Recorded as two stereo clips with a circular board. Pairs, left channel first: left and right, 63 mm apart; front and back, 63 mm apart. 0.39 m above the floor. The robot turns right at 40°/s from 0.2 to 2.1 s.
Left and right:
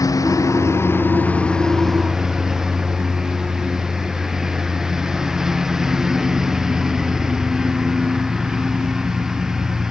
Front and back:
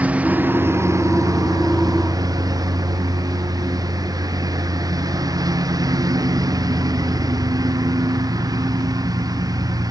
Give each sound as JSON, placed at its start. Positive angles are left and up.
{"t": 0.0, "sound": "a lawn mower", "azimuth_deg": 110}